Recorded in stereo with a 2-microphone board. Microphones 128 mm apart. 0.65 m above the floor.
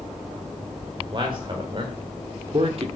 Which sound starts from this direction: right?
A man speaking, at 1.0 s.